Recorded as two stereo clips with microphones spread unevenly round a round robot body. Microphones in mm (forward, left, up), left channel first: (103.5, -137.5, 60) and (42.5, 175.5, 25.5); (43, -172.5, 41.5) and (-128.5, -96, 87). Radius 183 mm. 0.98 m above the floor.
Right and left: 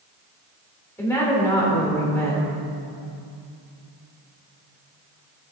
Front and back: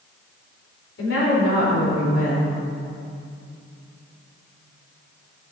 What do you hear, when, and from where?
1.0 s a woman speaking: 5° left, 4.5 m